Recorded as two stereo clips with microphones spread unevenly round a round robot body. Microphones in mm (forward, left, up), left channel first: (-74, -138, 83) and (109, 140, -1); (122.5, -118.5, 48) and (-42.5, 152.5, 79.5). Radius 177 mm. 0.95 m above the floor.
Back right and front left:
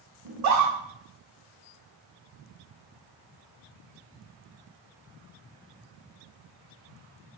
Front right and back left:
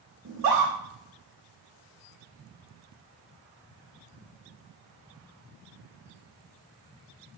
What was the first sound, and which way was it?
A scream, 80° left.